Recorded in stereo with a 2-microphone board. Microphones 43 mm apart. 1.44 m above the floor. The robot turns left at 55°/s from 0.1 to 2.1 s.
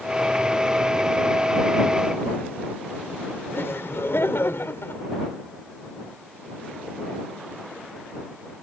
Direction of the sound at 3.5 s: 65° left (ahead or behind).